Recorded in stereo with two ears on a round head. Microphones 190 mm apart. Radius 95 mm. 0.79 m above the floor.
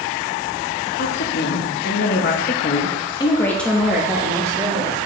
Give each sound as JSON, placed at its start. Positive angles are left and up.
{"t": 1.0, "sound": "a woman speaking", "side_deg": 55, "distance_m": 1.3}